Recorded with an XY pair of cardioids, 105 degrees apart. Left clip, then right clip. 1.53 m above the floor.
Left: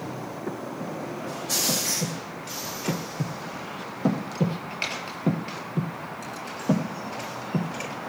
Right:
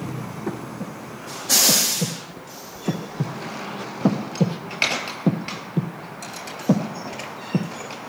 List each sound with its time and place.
0.5 s breathing: 30° right, 1.2 m